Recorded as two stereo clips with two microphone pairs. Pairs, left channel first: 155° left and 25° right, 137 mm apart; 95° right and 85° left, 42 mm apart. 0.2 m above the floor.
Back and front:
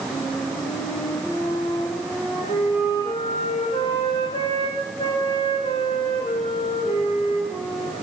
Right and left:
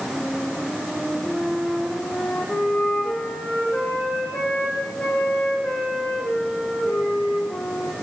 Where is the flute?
155° right, 10 m.